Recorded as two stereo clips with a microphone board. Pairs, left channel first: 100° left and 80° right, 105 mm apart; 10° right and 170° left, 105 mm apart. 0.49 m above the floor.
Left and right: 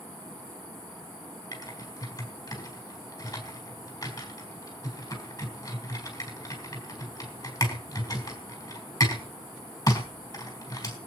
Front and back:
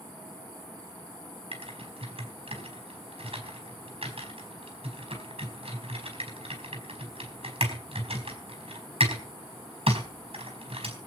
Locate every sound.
1.5 s typing on a keyboard: 150° left, 4.5 m